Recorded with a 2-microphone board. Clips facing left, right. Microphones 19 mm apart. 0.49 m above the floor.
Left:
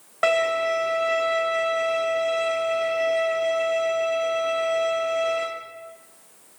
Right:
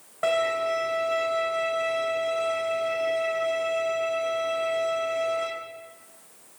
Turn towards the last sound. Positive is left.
turn(degrees=50)  # may be behind; listen again after turning